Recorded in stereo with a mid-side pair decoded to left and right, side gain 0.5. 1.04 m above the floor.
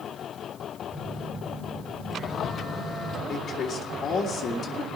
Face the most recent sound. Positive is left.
turn(degrees=50)